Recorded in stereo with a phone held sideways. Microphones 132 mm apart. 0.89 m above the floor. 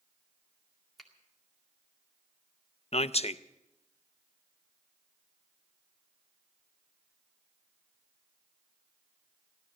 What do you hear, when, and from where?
1.0 s a finger snap: 5° left (ahead or behind), 2 m
2.9 s a man speaking: 50° left (ahead or behind), 0.5 m